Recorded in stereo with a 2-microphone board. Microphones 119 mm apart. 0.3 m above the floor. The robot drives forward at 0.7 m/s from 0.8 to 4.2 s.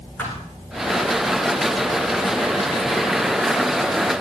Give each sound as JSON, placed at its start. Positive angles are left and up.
{"t": 0.2, "sound": "a thud", "side_deg": 15, "distance_m": 9.5}